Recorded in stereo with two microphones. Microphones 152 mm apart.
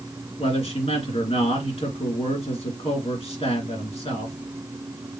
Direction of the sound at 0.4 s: 40° left (ahead or behind).